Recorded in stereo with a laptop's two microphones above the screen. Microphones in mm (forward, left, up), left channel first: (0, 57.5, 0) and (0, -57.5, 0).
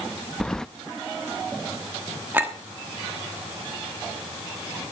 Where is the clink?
15° right (ahead or behind), 1.3 m.